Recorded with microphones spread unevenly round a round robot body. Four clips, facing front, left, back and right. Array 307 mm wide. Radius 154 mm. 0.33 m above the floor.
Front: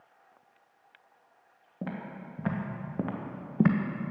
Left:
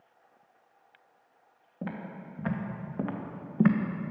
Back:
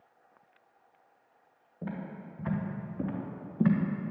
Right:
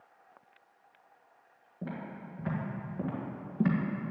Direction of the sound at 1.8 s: 25° left.